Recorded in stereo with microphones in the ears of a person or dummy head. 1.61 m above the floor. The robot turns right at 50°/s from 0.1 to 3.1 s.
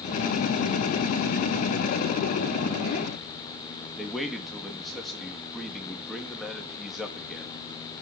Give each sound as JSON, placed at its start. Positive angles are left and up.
{"t": 4.0, "sound": "a man speaking", "side_deg": 0, "distance_m": 3.5}